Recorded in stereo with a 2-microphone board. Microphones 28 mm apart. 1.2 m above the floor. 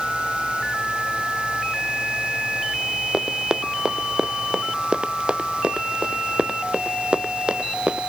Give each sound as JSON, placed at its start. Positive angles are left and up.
{"t": 3.1, "sound": "running footsteps", "side_deg": -25}